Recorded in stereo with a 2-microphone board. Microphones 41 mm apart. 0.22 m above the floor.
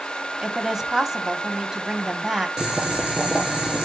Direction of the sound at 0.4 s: 10° right (ahead or behind).